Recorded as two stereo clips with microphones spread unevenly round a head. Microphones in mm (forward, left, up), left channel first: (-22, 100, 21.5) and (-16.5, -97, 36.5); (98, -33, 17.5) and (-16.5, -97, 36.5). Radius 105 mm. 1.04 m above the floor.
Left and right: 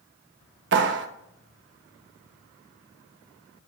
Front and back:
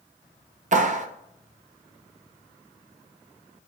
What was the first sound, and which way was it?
A clap, 120° right.